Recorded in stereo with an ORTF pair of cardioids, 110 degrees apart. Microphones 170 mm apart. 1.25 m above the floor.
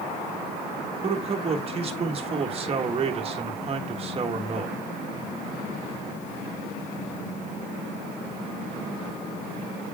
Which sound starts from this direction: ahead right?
A man speaking, at 1.0 s.